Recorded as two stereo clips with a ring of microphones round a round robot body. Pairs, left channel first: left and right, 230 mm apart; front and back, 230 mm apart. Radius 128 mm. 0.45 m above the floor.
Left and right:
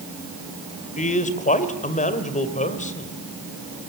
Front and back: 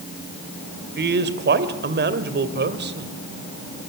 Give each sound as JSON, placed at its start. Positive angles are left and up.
{"t": 1.0, "sound": "a man speaking", "azimuth_deg": 145, "distance_m": 2.0}